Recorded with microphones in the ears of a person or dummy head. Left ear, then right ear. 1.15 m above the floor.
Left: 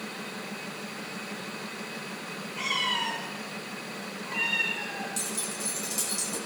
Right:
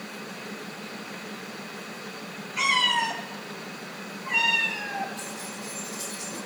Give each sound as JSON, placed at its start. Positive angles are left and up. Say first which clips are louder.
{"t": 2.6, "sound": "a cat meowing", "louder": "right 6 dB", "side_deg": -50, "distance_m": 2.5}
{"t": 5.2, "sound": "keys jangling", "louder": "left 2 dB", "side_deg": 70, "distance_m": 5.5}